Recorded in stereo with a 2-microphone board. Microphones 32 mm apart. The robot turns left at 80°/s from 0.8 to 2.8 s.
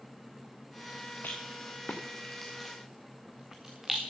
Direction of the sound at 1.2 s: 70° left (ahead or behind).